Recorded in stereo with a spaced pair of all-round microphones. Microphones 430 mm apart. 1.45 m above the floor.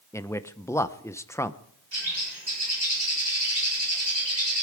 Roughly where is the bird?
Right.